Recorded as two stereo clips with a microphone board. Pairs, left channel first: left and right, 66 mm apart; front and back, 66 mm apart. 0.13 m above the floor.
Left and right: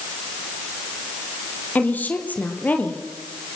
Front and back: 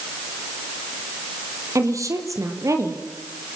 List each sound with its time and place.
1.8 s a woman speaking: 155° left, 4.5 m